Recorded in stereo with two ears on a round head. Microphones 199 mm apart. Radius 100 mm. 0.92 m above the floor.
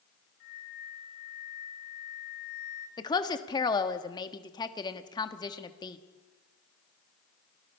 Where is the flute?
65° left (ahead or behind), 5.5 m.